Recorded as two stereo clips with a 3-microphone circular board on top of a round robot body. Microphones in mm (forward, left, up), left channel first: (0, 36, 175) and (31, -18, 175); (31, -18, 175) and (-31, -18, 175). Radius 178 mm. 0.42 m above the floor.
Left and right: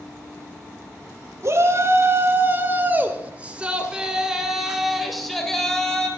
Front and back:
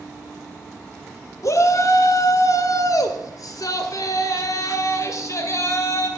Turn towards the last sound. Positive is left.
turn(degrees=40)